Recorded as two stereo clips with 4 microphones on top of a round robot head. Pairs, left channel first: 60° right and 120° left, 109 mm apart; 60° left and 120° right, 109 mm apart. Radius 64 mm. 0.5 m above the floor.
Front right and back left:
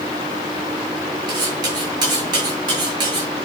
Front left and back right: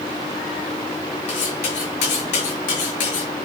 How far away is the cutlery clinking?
About 5.5 m.